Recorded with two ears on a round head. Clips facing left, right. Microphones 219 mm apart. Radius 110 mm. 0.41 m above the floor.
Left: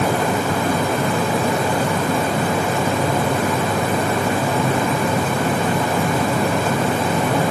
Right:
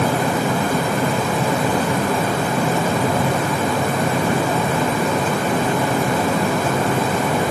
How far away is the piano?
No piano in this recording.